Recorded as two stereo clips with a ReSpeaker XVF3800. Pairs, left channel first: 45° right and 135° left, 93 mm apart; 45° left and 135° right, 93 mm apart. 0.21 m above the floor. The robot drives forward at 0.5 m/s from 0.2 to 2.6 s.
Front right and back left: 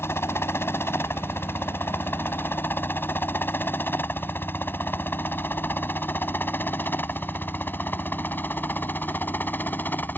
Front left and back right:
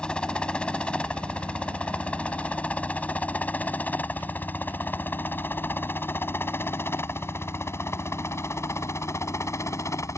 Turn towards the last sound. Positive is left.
turn(degrees=15)